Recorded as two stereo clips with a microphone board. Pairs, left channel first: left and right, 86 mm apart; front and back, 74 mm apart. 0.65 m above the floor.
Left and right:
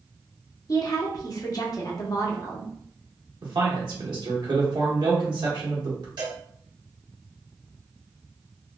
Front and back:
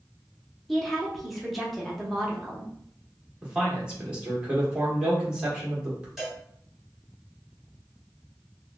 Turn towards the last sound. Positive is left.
turn(degrees=-95)